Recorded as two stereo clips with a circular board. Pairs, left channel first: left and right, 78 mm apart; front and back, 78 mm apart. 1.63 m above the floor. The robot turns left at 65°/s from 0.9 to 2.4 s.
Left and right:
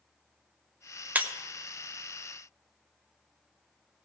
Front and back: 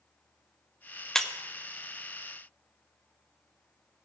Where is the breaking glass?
75° right, 0.7 m; by 1.3 s 85° right, 0.7 m.